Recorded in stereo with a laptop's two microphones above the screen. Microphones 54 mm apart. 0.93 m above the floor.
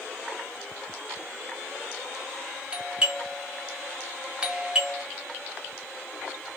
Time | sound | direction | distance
2.7 | a doorbell | 20° right (ahead or behind) | 0.8 m